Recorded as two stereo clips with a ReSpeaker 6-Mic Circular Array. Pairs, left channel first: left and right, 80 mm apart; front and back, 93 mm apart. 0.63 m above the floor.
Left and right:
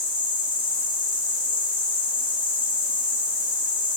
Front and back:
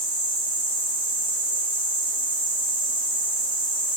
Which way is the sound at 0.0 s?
25° right.